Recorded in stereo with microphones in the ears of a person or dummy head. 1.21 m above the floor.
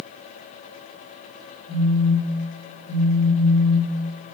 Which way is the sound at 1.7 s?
25° left (ahead or behind).